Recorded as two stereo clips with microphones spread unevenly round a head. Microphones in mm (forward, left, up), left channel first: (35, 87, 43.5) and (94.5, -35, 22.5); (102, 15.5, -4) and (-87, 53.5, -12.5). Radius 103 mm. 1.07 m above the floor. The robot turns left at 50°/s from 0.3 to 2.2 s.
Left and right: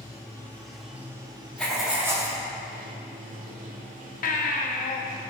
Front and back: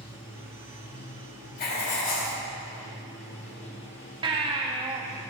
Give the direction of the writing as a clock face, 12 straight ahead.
11 o'clock.